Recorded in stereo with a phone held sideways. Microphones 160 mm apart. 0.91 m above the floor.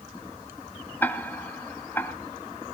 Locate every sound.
1.0 s ticking: 15° left (ahead or behind), 1.5 m